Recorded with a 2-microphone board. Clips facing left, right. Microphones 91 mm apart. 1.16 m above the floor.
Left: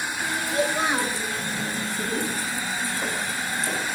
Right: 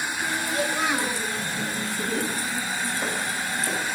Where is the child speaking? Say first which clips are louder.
Left 3 dB; 30° left (ahead or behind), 6.5 m.